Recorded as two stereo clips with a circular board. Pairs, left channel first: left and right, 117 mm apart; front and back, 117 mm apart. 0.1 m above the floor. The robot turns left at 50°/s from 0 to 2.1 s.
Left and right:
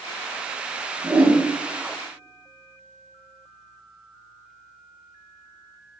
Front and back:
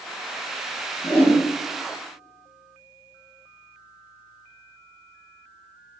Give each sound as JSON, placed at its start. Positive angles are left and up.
{"t": 1.0, "sound": "a whoosh", "azimuth_deg": -40, "distance_m": 0.7}